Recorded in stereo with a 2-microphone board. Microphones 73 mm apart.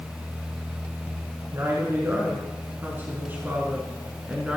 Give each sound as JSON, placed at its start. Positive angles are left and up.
{"t": 1.5, "sound": "a woman speaking", "side_deg": -40, "distance_m": 4.0}